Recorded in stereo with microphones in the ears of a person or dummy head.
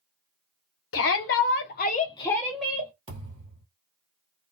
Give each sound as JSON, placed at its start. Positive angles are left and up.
{"t": 0.9, "sound": "a shout", "side_deg": 65, "distance_m": 1.2}
{"t": 3.1, "sound": "a thud", "side_deg": -30, "distance_m": 1.8}